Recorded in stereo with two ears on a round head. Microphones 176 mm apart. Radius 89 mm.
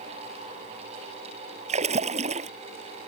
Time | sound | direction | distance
1.7 | a splash | 35° right (ahead or behind) | ?